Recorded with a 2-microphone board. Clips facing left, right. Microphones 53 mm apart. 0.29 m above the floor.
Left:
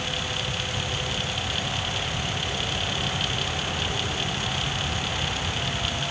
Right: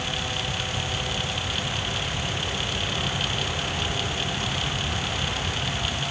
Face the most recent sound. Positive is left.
No sound to turn to.